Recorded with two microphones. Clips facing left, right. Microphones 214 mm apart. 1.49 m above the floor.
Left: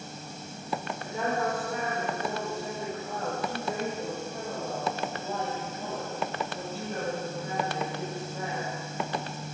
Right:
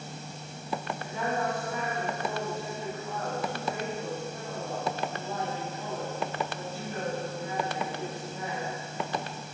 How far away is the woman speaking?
About 4.5 m.